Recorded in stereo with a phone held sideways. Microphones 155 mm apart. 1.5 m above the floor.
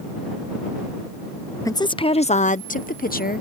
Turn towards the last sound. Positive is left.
turn(degrees=75)  # may be behind; listen again after turning